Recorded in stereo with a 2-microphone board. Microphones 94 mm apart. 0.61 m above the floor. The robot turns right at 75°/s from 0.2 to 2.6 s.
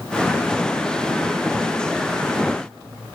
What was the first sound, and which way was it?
Only background noise.